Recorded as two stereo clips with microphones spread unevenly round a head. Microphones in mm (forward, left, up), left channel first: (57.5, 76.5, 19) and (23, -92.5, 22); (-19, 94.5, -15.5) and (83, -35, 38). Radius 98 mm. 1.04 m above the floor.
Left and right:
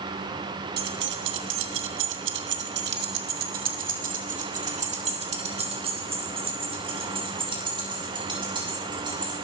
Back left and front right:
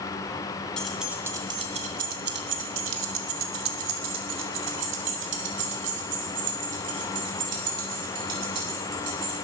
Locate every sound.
0.8 s keys jangling: 145° right, 1.5 m; by 9.3 s 40° right, 6.5 m